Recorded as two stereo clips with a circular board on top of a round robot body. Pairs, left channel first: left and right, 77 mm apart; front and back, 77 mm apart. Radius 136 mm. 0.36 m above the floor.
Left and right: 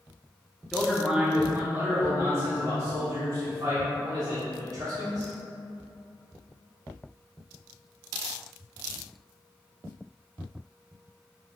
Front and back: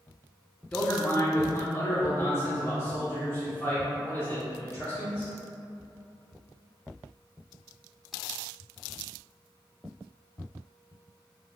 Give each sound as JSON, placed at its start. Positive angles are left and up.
{"t": 0.7, "sound": "a man speaking", "azimuth_deg": 20, "distance_m": 0.8}